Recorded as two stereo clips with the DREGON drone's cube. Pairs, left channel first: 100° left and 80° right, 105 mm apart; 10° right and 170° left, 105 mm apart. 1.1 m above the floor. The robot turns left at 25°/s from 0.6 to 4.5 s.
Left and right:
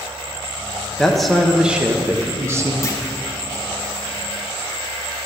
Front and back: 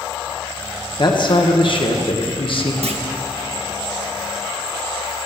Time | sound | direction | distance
1.0 | a man speaking | 15° left | 1.2 m
2.8 | a clunk | 160° left | 0.9 m